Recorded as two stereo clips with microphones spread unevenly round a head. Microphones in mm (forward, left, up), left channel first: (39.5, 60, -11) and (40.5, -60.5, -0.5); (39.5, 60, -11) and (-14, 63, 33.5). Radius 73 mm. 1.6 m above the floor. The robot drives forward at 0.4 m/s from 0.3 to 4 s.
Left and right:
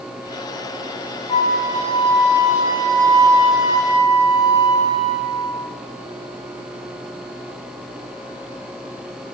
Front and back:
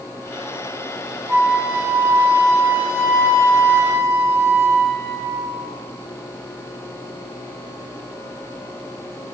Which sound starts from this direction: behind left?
A flute, at 1.3 s.